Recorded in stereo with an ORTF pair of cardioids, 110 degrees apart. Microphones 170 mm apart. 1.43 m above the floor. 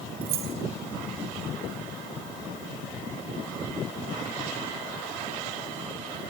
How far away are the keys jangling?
About 0.9 m.